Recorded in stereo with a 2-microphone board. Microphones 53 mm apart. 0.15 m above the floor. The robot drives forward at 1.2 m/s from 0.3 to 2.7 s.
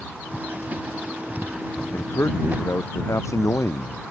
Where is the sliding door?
I don't hear a sliding door.